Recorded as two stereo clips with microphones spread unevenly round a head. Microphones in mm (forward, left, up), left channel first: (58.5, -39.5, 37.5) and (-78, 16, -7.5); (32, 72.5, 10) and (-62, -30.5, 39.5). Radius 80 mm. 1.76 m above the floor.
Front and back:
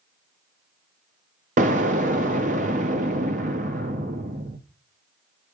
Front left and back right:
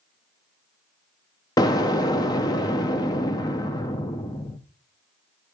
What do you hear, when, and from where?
1.6 s an explosion: 115° left, 0.5 m